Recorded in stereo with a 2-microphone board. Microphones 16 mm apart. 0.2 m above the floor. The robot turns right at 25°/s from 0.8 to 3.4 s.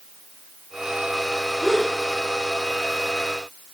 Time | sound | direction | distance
1.6 | a gasp | 50° left (ahead or behind) | 8 m